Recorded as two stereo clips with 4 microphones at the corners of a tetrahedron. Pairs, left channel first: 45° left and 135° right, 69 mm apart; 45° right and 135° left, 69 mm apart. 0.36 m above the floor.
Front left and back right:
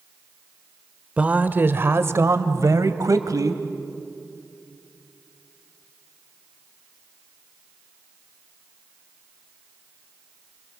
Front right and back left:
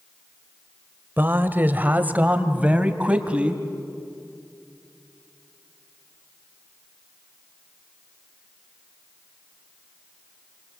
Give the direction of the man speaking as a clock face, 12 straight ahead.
6 o'clock.